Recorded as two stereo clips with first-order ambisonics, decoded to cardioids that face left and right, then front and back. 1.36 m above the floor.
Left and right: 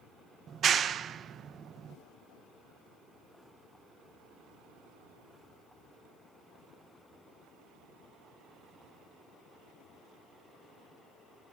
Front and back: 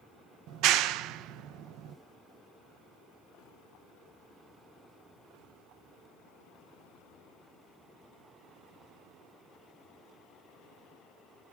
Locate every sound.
0.5 s a clap: 150° right, 0.7 m